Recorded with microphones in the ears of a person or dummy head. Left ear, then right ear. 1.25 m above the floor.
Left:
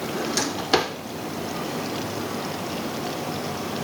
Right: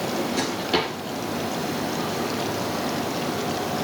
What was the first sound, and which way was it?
A drawer, 55° left (ahead or behind).